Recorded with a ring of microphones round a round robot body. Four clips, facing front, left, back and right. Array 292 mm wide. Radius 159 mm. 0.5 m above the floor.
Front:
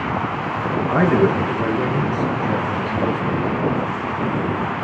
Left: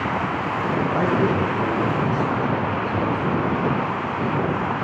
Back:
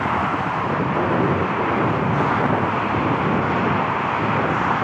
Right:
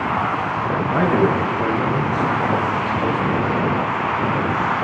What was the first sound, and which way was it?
A man speaking, 25° right.